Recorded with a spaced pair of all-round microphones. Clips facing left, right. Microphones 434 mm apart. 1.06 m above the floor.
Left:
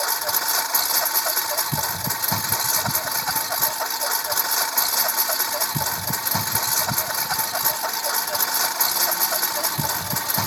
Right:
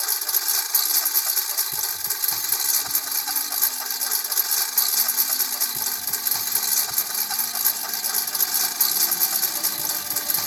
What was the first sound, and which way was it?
A lawn mower, 75° left (ahead or behind).